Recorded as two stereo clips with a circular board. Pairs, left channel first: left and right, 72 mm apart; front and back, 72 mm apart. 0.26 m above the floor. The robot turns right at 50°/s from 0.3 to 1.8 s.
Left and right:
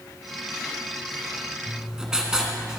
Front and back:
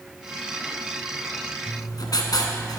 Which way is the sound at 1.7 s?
15° right.